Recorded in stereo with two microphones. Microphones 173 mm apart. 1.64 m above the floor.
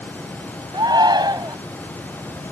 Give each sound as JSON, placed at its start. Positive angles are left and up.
{"t": 0.7, "sound": "a shout", "side_deg": -20}